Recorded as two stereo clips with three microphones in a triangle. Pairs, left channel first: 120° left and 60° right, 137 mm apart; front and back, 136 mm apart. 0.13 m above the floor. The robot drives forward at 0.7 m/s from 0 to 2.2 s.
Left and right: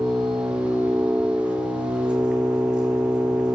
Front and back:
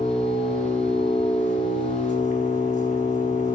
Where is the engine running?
15° left, 4 m; by 3.6 s 25° left, 2.5 m.